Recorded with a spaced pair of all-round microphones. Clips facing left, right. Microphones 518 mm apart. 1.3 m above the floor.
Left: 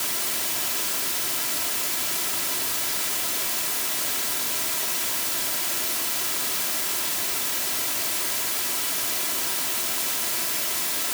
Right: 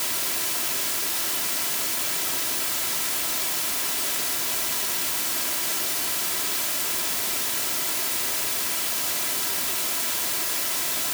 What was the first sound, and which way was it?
Only background noise.